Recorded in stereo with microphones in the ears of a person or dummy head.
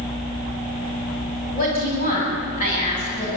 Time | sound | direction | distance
1.5 | a woman speaking | 40° left (ahead or behind) | 9 m